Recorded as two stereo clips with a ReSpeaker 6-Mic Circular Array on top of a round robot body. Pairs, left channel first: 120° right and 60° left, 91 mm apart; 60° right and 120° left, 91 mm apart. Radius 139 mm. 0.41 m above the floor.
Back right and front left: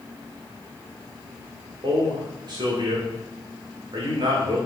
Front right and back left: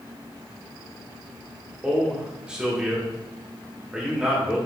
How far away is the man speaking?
About 2.5 m.